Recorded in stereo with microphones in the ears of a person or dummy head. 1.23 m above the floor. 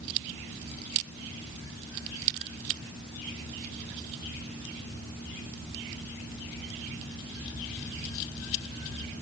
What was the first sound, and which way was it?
Only background noise.